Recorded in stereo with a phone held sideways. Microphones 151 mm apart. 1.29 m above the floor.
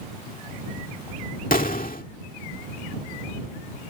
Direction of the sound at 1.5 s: 70° left (ahead or behind).